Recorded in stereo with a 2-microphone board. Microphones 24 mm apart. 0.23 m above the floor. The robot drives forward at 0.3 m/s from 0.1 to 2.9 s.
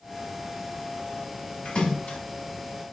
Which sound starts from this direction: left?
A splash, at 1.6 s.